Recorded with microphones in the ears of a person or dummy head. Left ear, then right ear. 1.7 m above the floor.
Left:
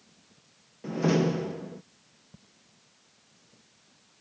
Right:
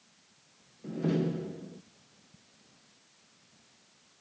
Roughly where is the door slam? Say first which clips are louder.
Left 6 dB; left.